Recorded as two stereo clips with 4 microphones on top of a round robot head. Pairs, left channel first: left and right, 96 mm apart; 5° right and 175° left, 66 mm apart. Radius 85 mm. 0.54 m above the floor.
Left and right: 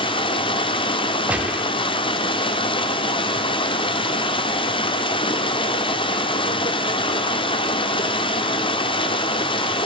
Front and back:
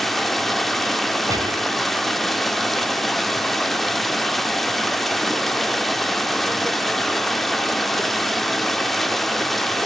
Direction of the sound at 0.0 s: 85° left.